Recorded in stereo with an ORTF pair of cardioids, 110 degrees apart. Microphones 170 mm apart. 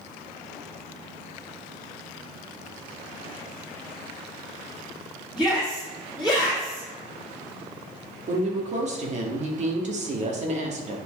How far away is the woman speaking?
About 2.5 m.